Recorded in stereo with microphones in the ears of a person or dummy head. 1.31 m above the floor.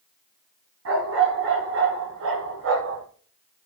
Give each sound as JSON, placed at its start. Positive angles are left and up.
{"t": 0.8, "sound": "a dog barking", "side_deg": -70, "distance_m": 4.0}